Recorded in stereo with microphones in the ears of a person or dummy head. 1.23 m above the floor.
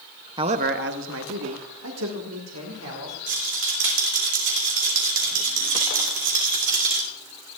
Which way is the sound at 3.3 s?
60° right (ahead or behind).